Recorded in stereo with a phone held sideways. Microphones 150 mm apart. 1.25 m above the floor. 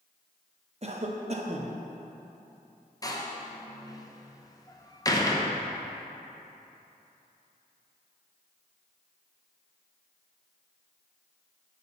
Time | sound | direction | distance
0.8 | a cough | 45° right (ahead or behind) | 0.8 m
3.0 | a door slam | 25° left (ahead or behind) | 0.7 m